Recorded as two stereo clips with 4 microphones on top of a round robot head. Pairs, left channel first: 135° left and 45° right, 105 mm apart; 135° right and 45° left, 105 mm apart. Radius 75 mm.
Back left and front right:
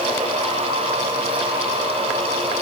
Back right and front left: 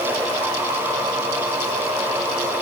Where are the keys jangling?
No keys jangling in this recording.